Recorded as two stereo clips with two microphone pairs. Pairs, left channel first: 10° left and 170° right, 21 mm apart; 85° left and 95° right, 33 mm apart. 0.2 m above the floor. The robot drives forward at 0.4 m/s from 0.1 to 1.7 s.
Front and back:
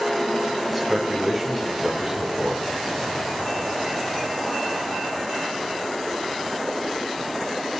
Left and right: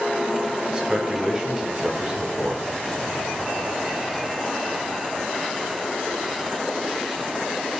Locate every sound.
0.7 s a man speaking: 65° right, 1.4 m; by 2.7 s 105° right, 1.3 m